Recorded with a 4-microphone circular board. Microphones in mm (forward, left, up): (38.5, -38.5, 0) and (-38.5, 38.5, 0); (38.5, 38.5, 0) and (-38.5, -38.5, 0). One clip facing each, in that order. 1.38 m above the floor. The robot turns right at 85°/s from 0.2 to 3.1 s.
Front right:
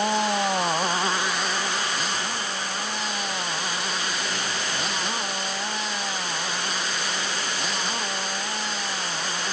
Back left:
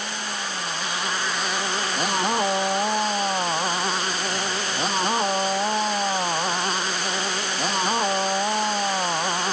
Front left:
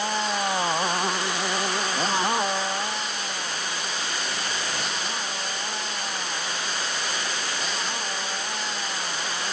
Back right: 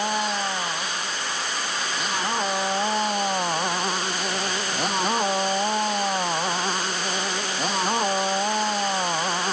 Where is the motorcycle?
55° right; by 9.5 s straight behind.